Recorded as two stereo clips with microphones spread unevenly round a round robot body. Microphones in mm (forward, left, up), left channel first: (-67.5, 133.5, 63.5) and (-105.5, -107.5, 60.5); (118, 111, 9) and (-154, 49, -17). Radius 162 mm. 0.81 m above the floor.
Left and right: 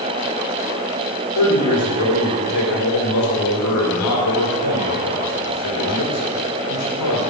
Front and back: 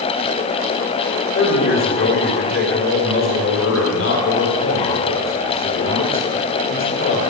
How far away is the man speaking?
About 3 m.